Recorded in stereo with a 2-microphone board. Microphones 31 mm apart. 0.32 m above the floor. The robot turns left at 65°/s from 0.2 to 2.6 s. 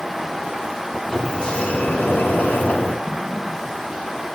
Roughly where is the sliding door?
Behind.